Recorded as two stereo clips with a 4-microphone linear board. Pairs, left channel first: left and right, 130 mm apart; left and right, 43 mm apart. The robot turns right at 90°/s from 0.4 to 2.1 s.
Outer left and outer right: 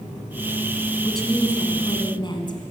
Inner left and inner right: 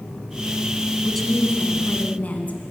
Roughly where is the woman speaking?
Ahead.